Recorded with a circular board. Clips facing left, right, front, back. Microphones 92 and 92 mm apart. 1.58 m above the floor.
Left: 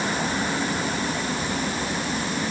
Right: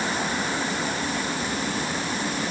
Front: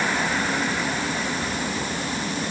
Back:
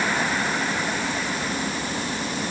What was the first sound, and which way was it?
Only background noise.